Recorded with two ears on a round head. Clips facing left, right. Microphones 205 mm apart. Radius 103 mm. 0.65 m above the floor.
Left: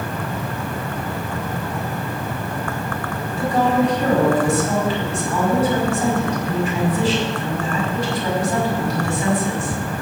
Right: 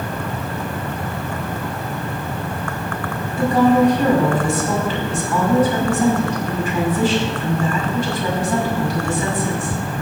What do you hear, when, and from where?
3.4 s a woman speaking: 75° right (ahead or behind), 6 m